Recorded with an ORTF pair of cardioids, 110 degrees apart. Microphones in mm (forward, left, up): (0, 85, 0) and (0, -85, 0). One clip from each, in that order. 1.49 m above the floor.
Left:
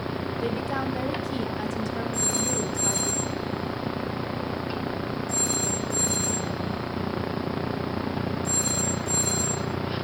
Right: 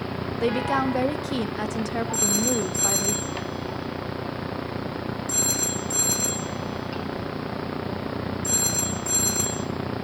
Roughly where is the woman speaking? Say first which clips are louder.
Right 7 dB; ahead right.